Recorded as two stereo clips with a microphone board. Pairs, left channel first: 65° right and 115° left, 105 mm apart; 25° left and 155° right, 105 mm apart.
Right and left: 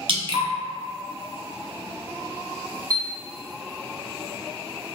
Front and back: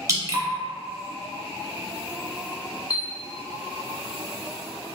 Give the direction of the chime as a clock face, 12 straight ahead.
10 o'clock.